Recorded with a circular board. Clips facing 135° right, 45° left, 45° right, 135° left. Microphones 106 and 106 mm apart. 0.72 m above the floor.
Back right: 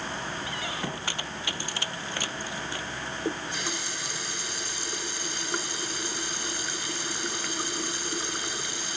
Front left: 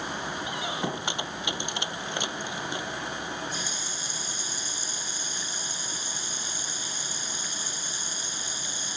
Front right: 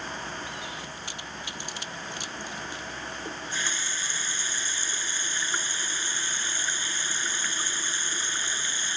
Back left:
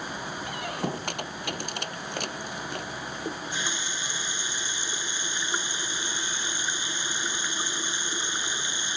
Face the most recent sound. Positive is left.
turn(degrees=-155)